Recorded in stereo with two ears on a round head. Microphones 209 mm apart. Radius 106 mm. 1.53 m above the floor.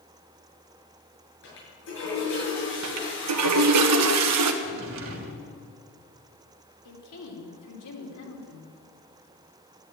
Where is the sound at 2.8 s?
85° right, 1.5 m.